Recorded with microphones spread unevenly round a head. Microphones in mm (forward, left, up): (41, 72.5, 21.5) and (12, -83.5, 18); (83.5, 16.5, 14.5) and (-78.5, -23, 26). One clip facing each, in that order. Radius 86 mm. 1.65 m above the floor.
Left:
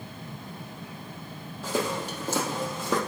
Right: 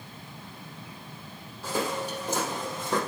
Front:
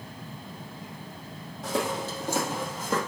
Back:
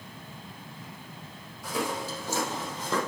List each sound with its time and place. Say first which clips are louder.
1.6 s footsteps: left 1 dB, front 2 dB; 80° left, 3.5 m; by 3.0 s 100° left, 3 m